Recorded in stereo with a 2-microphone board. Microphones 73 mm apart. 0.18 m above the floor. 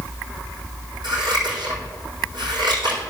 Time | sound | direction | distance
1.0 | scissors | 80° right | 4.5 m